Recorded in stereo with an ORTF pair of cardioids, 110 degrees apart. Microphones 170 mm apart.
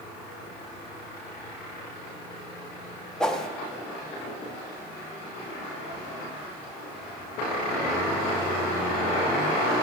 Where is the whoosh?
5° left, 0.7 m.